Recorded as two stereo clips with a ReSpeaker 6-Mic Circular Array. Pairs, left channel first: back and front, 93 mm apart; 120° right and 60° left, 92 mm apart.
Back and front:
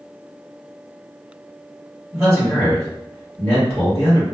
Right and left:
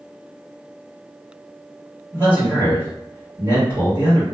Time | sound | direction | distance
2.1 | a man speaking | 120° left | 1.7 m